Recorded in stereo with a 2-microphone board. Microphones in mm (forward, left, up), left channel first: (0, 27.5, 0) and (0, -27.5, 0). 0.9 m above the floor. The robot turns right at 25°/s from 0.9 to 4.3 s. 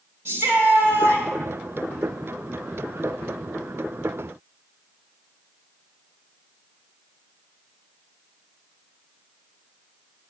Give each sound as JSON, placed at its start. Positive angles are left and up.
{"t": 0.2, "sound": "a shout", "side_deg": -50, "distance_m": 3.5}